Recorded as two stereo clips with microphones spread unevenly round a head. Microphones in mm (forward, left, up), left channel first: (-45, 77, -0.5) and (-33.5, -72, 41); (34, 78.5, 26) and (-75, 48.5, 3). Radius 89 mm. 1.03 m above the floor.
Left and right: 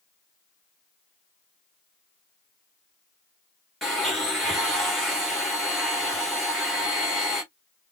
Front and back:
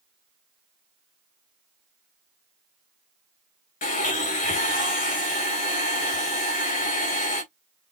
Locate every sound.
3.8 s a blender: 5° left, 3 m